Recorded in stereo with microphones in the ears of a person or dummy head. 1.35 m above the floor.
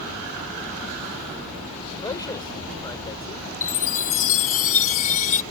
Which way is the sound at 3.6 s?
40° left (ahead or behind).